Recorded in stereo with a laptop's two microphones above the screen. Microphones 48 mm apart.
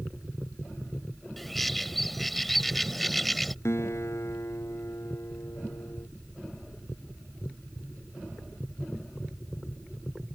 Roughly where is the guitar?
Left.